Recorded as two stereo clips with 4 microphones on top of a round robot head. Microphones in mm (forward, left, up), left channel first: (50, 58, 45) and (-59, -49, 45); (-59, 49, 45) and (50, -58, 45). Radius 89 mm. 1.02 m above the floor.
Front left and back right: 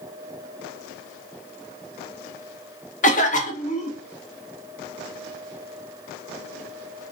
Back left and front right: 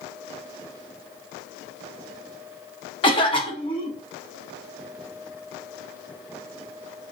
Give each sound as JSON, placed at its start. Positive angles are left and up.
{"t": 3.0, "sound": "a cough", "azimuth_deg": 80, "distance_m": 1.1}